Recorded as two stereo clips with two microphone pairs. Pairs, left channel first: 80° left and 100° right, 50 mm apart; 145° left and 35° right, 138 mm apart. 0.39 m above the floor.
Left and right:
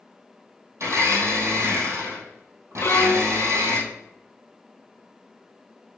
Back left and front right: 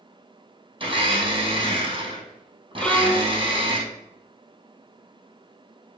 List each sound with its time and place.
0.8 s a blender: 85° right, 2 m
2.8 s a violin: 65° left, 0.6 m